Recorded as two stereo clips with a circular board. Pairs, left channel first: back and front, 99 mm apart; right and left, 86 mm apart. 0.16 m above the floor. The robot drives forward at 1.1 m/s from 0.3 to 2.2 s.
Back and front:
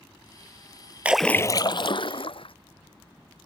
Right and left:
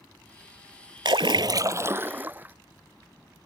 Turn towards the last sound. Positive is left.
turn(degrees=155)